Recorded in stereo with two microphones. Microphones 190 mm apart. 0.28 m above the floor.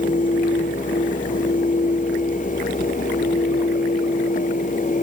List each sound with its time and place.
Only background noise.